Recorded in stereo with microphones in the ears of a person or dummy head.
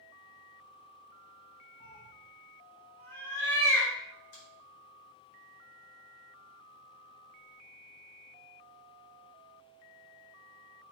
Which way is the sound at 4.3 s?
50° left (ahead or behind).